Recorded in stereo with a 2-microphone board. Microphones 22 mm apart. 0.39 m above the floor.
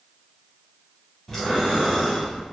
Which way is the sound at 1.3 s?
10° left (ahead or behind).